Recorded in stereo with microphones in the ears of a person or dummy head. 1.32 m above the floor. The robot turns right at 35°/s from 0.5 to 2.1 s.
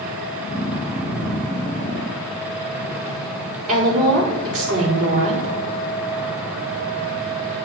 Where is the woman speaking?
55° right (ahead or behind), 5 m.